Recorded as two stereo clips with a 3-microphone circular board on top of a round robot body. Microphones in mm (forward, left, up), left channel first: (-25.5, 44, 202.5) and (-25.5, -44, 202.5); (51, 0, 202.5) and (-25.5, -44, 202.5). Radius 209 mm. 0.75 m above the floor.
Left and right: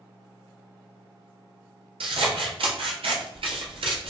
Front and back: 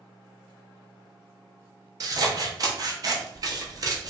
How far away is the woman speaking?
I don't hear a woman speaking.